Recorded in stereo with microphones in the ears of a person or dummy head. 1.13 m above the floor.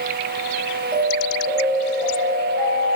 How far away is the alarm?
About 4.5 m.